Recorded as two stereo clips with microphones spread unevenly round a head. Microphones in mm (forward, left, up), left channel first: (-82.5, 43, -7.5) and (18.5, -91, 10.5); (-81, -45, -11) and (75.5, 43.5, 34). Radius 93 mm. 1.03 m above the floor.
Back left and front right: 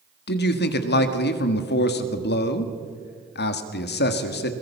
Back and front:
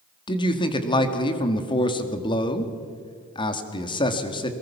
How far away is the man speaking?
About 1.8 m.